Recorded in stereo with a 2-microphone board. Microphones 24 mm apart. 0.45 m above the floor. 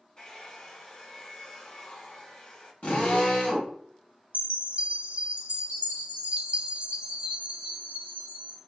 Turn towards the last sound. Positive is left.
turn(degrees=-55)  # may be behind; listen again after turning